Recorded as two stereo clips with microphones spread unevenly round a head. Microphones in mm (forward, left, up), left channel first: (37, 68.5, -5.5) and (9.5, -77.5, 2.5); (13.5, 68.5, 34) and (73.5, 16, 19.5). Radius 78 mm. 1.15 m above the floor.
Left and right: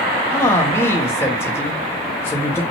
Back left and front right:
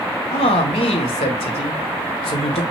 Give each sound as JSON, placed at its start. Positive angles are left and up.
{"t": 0.3, "sound": "a man speaking", "azimuth_deg": 155, "distance_m": 1.3}